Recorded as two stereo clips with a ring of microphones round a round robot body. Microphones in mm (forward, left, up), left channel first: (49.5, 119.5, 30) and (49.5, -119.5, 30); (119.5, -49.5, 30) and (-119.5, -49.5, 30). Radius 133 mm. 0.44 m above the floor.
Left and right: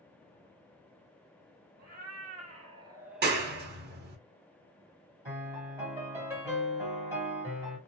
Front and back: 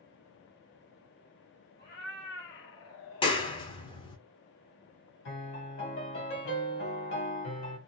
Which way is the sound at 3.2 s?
60° right.